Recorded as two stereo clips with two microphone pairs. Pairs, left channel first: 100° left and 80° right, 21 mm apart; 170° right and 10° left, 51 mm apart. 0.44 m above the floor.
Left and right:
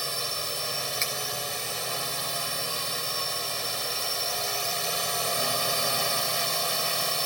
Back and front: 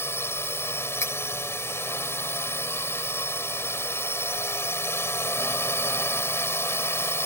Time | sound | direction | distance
0.0 | a drone | 175° left | ?
1.0 | cutlery clinking | 165° right | ?